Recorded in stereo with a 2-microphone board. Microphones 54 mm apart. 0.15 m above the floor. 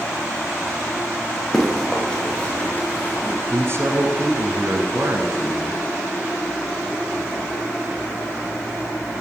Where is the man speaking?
45° right (ahead or behind), 1.8 m.